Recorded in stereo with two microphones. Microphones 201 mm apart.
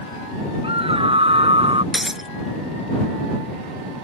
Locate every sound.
0.6 s a scream: 25° right (ahead or behind)
1.9 s breaking glass: centre (ahead or behind)